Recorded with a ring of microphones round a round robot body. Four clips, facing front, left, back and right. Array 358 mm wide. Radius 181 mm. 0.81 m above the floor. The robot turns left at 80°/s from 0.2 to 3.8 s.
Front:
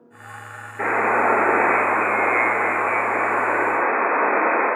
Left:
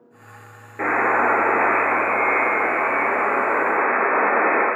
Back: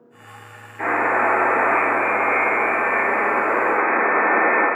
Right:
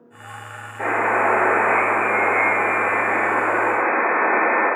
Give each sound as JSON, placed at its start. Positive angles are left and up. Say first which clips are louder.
{"t": 0.8, "sound": "a buzzer", "louder": "even, even", "azimuth_deg": 70, "distance_m": 2.5}